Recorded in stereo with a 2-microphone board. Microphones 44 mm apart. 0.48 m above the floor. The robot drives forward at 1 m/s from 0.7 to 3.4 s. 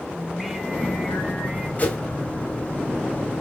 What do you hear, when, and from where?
0.2 s singing: centre (ahead or behind), 2.5 m
1.8 s a whoosh: 35° left (ahead or behind), 2 m; by 2.0 s 30° left (ahead or behind), 2 m